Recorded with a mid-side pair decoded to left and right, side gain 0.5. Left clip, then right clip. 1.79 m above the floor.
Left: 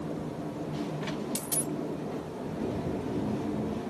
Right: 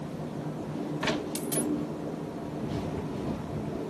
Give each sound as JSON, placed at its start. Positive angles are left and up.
{"t": 1.4, "sound": "a dropped coin", "azimuth_deg": 25}